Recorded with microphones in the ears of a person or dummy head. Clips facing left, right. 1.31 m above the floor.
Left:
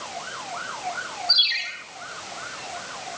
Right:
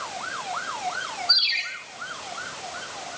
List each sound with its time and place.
1.3 s a ringtone: 15° left (ahead or behind), 6 m